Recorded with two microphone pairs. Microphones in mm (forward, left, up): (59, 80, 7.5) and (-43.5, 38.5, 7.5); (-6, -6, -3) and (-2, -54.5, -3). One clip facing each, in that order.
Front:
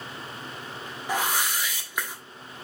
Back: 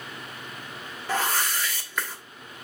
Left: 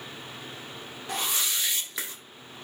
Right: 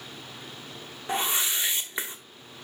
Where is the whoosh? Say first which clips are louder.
Back 1 dB, right 3 dB; 40° right, 1.1 m.